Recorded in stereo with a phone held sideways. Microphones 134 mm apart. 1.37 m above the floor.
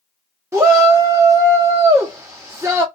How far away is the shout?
About 0.7 m.